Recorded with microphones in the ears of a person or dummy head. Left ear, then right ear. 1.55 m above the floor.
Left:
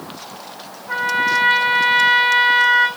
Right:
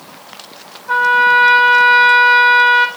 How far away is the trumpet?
About 2.5 m.